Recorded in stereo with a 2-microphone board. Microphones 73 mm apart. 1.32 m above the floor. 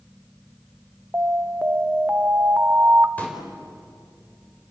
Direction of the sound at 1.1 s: 25° right (ahead or behind).